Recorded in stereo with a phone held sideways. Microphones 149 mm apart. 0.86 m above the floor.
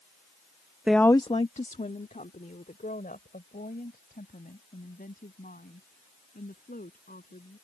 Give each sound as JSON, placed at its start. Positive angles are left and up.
{"t": 0.9, "sound": "a woman speaking", "side_deg": -10}